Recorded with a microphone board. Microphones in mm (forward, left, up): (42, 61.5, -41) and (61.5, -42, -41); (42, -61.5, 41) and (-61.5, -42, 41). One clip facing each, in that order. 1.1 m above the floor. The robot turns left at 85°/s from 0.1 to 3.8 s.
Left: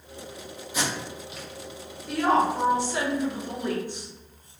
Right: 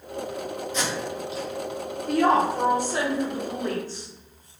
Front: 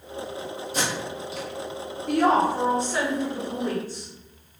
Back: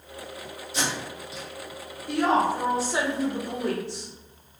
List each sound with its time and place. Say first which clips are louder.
0.7 s tape being pulled: even, front 1 dB; 25° left, 0.8 m; by 1.5 s 40° right, 0.8 m
2.1 s a woman speaking: right 2 dB, front 2 dB; 40° right, 0.7 m; by 4.1 s 170° left, 0.7 m